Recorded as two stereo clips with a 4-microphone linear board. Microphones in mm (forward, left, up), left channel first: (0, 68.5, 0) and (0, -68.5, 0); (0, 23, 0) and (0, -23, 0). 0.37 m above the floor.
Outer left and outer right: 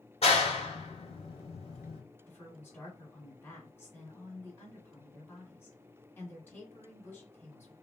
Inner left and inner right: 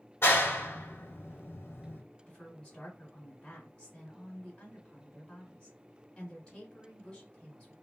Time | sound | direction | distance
0.2 | a clap | 45° left (ahead or behind) | 1.0 m
2.3 | a woman speaking | 15° left (ahead or behind) | 1.6 m